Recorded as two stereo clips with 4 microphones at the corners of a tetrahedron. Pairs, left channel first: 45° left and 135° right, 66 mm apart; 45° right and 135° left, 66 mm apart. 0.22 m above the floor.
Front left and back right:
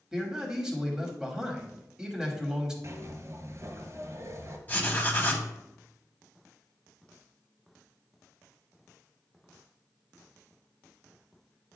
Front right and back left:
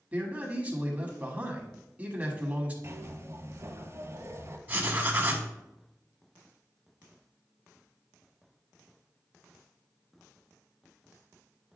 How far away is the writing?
About 1.0 m.